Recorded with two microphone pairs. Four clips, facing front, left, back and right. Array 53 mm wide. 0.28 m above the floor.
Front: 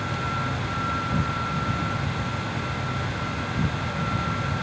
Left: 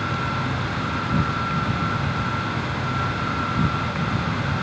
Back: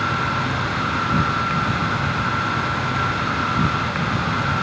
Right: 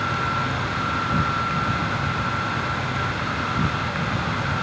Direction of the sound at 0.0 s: 170° right.